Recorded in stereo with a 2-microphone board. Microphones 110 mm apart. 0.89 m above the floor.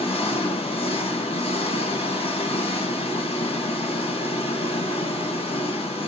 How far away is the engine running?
About 2.5 m.